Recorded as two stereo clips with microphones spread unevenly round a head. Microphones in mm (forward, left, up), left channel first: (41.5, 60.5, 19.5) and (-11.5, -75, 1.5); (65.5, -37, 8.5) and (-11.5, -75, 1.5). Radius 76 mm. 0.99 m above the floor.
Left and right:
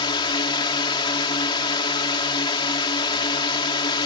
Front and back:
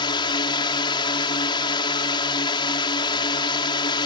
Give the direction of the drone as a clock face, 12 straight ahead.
12 o'clock.